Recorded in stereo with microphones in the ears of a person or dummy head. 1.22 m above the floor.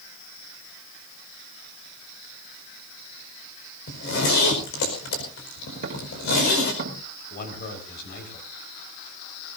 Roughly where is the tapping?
Right.